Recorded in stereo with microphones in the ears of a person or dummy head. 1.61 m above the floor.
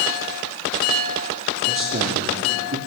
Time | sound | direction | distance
1.7 | a man speaking | 40° right (ahead or behind) | 3 m